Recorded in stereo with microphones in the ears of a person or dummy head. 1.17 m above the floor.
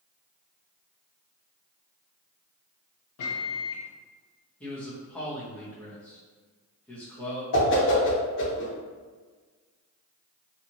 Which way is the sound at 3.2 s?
65° left (ahead or behind).